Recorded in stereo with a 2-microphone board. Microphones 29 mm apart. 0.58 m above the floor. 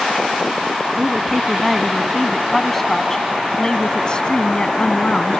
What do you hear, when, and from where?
0.9 s a woman speaking: 10° right (ahead or behind); by 5.4 s 50° left (ahead or behind)